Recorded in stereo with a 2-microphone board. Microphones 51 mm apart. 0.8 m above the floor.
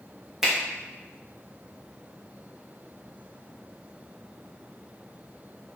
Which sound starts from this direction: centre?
A finger snap, at 0.4 s.